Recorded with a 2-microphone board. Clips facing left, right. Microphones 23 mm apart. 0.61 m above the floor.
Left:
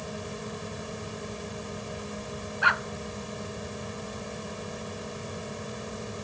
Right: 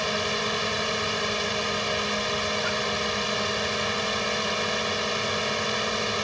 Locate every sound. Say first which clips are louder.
0.0 s a drone: right 12 dB; 60° right (ahead or behind)
2.6 s a dog barking: left 3 dB; 55° left (ahead or behind)